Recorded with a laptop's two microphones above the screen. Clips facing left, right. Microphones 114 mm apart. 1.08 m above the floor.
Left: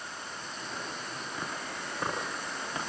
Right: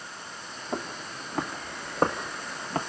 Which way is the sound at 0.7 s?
65° right (ahead or behind).